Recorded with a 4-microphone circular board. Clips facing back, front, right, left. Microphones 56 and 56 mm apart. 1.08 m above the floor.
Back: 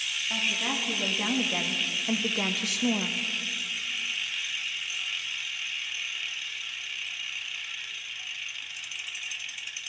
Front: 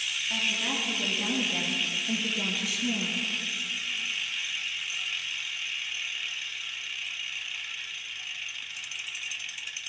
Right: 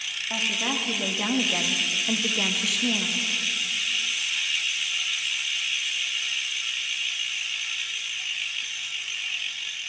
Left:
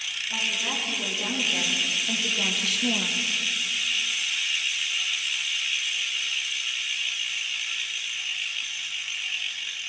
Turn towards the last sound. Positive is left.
turn(degrees=165)